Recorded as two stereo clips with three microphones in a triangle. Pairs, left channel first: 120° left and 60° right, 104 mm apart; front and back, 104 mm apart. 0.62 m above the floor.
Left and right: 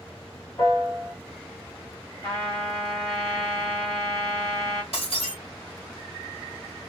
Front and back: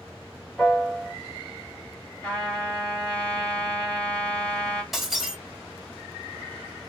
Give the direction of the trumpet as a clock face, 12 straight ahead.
10 o'clock.